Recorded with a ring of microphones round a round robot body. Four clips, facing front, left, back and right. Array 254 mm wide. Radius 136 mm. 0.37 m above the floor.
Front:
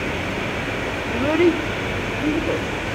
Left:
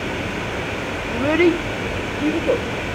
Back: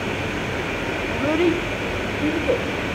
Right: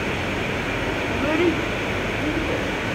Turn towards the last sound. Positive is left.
turn(degrees=115)